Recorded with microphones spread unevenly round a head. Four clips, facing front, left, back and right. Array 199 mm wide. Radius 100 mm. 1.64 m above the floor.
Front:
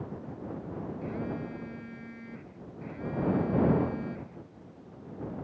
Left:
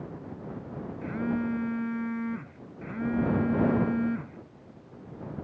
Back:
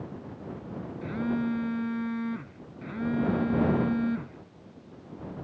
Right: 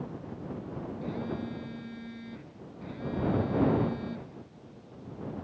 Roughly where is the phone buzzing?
Behind left.